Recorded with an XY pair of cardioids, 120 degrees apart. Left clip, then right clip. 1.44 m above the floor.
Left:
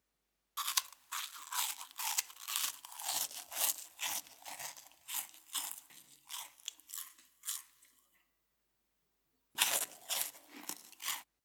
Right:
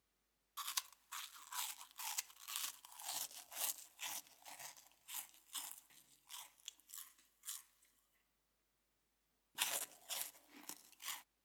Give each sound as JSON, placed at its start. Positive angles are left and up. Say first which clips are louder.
{"t": 0.6, "sound": "chewing", "louder": "left 8 dB", "azimuth_deg": 45}